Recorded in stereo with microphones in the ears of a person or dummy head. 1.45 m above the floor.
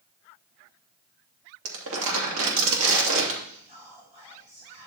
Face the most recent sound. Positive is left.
turn(degrees=-35)  # may be behind; listen again after turning